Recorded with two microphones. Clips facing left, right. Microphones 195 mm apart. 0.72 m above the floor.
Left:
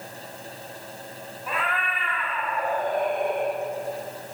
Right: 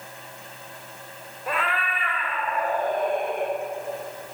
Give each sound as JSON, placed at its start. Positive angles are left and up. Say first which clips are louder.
{"t": 1.5, "sound": "a cat meowing", "louder": "right 2 dB", "side_deg": -85, "distance_m": 1.2}